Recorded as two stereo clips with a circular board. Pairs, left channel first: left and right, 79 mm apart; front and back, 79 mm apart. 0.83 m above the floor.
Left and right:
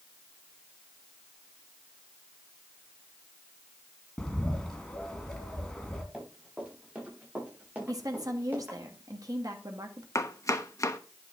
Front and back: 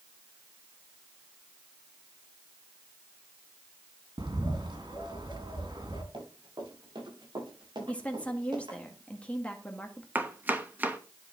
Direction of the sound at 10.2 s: 120° left.